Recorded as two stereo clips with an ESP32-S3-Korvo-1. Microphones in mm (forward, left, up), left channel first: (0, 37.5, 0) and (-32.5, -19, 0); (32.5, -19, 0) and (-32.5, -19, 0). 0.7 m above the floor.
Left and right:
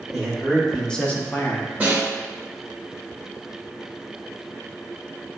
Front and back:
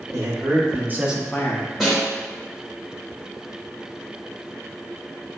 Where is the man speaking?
150° left, 1.6 m; by 1.7 s straight ahead, 0.8 m.